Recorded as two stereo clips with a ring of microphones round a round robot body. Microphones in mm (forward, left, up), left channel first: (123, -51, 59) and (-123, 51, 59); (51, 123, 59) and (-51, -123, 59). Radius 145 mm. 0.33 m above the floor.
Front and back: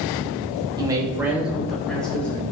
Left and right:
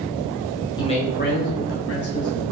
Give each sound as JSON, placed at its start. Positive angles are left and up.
{"t": 0.8, "sound": "a man speaking", "azimuth_deg": 115, "distance_m": 0.9}